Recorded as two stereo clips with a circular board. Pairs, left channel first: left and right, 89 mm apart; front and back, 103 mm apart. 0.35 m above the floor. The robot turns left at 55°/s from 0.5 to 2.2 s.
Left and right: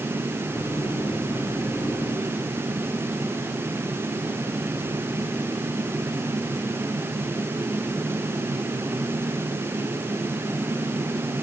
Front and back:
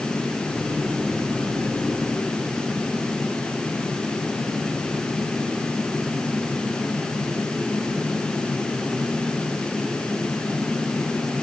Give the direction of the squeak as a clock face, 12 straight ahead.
No squeak in this recording.